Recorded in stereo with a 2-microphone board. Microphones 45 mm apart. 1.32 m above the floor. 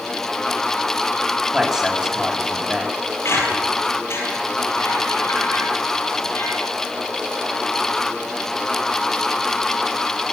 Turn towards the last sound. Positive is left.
turn(degrees=75)  # may be behind; listen again after turning